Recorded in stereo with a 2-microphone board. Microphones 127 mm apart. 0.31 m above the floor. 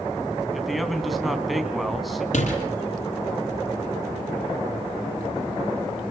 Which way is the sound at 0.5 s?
Centre (ahead or behind).